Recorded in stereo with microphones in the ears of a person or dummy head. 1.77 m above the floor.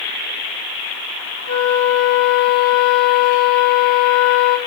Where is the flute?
35° left (ahead or behind), 1.7 m.